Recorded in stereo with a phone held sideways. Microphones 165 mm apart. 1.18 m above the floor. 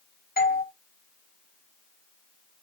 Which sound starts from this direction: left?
A doorbell, at 0.4 s.